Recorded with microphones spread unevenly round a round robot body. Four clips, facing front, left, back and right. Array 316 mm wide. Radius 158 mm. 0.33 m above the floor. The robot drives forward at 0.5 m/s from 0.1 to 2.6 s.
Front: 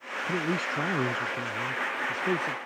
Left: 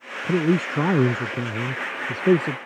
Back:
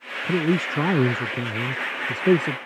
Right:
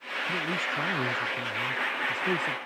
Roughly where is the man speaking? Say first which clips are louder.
Left 12 dB, back 8 dB; behind left.